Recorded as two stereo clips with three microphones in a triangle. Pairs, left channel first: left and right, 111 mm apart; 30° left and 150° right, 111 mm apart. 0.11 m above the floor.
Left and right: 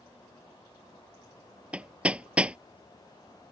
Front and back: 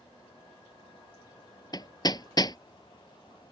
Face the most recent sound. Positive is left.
turn(degrees=-15)